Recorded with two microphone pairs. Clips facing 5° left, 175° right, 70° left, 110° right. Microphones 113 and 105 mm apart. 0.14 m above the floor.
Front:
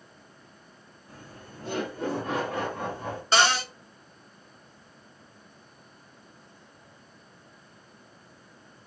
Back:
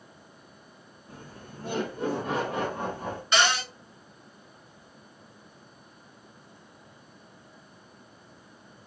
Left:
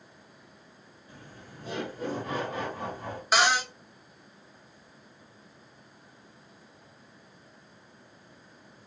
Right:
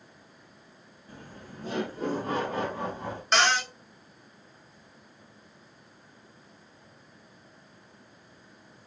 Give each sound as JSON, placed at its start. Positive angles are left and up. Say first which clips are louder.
{"t": 1.1, "sound": "laughter", "louder": "back 1 dB, right 4 dB", "azimuth_deg": -110, "distance_m": 2.5}
{"t": 3.3, "sound": "a cupboard door", "louder": "front 2 dB, left 1 dB", "azimuth_deg": -5, "distance_m": 0.7}